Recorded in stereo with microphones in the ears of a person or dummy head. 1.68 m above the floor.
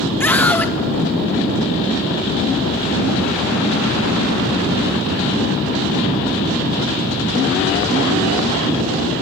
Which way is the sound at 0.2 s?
10° left (ahead or behind).